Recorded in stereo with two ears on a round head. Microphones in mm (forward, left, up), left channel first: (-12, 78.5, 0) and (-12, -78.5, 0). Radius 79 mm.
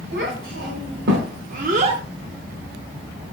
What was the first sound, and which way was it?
A child speaking, 60° right (ahead or behind).